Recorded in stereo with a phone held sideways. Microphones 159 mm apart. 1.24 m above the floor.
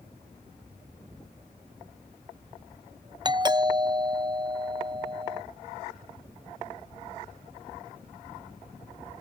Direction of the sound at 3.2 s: 25° right (ahead or behind).